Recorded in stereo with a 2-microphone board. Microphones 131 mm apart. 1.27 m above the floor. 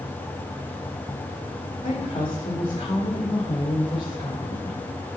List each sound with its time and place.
1.8 s a woman speaking: 40° left (ahead or behind), 4 m